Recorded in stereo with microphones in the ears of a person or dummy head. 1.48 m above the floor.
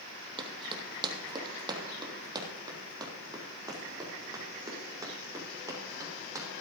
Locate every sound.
0.4 s running footsteps: 30° right (ahead or behind), 3 m; by 6.5 s 20° right (ahead or behind), 6 m